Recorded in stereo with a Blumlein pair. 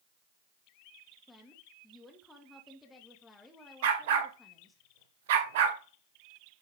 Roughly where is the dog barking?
Ahead right.